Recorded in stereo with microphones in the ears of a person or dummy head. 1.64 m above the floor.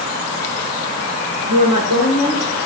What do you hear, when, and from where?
1.4 s a woman speaking: 80° right, 8.5 m